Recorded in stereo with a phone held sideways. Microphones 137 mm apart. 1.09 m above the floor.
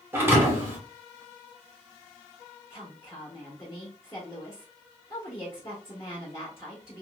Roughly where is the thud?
Centre.